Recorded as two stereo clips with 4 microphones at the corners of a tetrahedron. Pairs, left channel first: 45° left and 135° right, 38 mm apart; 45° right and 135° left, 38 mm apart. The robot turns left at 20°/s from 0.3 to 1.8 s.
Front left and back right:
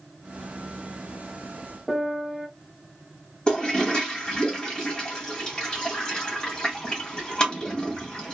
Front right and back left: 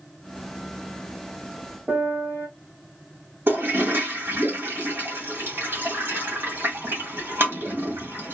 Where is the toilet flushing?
115° left, 1.9 m.